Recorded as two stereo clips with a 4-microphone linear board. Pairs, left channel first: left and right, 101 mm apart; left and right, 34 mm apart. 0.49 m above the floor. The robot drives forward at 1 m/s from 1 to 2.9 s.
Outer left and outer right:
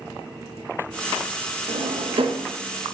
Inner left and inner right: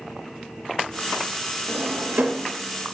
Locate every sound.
1.7 s a drawer: 65° right (ahead or behind), 0.7 m; by 2.5 s 50° right (ahead or behind), 0.9 m